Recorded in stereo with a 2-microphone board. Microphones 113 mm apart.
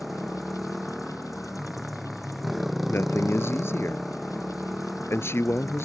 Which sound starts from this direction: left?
A man speaking, at 2.9 s.